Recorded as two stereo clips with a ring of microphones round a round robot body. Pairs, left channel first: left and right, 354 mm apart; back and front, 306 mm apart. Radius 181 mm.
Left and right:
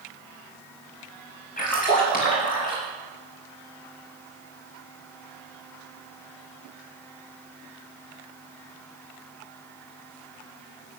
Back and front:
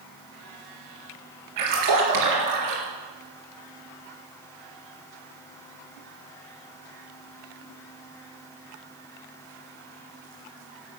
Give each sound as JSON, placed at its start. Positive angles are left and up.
{"t": 1.6, "sound": "a splash", "azimuth_deg": 20, "distance_m": 3.5}